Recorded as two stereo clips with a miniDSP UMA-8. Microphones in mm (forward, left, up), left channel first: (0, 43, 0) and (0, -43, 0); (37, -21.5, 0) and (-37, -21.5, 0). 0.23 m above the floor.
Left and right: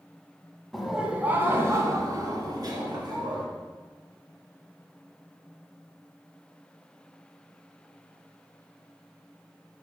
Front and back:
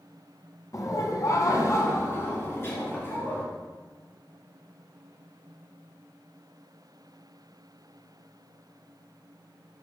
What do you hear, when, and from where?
0.7 s laughter: 5° left, 1.8 m; by 3.4 s 60° right, 4.5 m